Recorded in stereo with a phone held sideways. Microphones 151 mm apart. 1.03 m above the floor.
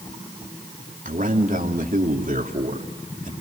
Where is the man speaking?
60° right (ahead or behind), 3 m.